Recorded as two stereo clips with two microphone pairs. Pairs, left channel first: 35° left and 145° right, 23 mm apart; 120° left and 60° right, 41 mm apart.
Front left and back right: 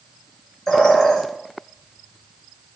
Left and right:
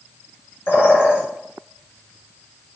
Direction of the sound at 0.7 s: 105° left.